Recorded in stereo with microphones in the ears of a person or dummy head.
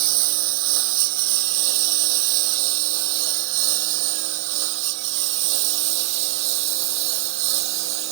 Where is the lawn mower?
85° right; by 8.1 s 65° right (ahead or behind).